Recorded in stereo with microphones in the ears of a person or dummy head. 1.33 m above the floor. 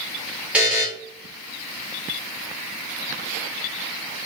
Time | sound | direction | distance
0.5 | a buzzer | 5° right (ahead or behind) | 4 m